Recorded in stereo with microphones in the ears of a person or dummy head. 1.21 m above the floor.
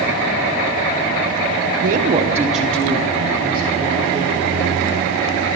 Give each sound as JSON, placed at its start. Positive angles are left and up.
{"t": 1.8, "sound": "a woman speaking", "side_deg": -45, "distance_m": 1.1}